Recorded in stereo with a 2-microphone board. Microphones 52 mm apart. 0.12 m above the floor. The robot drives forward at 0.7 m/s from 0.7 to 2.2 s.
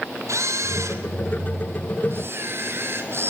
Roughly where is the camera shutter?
Right.